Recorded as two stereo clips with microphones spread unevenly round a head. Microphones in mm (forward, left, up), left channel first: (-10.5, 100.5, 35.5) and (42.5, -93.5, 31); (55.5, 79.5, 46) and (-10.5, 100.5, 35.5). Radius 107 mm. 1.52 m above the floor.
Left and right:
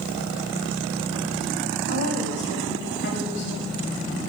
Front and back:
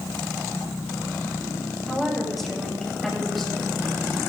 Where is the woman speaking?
70° left, 8.5 m.